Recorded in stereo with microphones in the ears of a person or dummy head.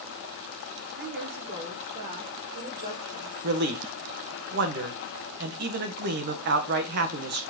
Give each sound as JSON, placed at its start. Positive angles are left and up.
{"t": 1.0, "sound": "a woman speaking", "side_deg": -65, "distance_m": 5.0}
{"t": 3.4, "sound": "a man speaking", "side_deg": -60, "distance_m": 1.6}